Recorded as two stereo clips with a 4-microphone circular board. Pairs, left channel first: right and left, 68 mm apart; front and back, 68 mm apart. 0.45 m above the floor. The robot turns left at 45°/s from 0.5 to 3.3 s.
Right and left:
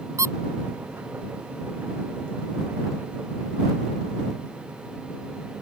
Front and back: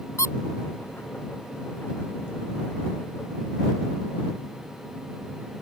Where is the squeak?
45° left.